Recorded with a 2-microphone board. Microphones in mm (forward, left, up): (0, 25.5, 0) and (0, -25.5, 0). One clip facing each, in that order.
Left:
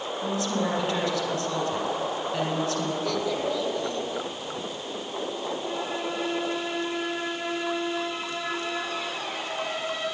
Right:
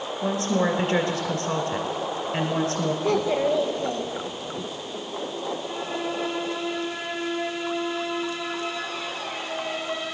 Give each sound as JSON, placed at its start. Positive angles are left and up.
{"t": 0.2, "sound": "a woman speaking", "side_deg": -40, "distance_m": 1.9}
{"t": 3.0, "sound": "a child speaking", "side_deg": -30, "distance_m": 1.6}